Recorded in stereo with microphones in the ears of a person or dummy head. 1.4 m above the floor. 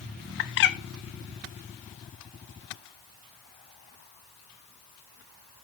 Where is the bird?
55° left (ahead or behind), 0.5 m.